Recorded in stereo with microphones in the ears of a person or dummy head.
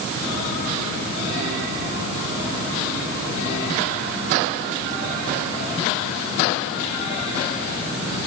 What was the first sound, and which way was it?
Only background noise.